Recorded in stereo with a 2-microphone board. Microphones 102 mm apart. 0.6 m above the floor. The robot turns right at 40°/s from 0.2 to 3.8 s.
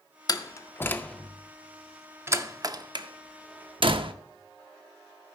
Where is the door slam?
40° left (ahead or behind), 0.5 m; by 4.1 s 55° right (ahead or behind), 0.5 m.